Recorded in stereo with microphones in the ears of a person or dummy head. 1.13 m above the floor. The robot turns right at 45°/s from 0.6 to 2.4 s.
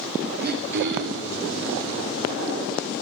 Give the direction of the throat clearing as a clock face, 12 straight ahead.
5 o'clock.